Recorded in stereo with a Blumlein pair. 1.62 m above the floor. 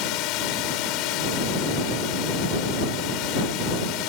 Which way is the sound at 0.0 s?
40° left.